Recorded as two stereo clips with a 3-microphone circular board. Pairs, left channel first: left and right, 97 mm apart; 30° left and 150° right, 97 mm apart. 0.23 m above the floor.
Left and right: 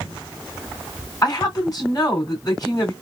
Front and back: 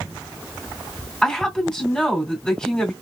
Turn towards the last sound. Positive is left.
turn(degrees=105)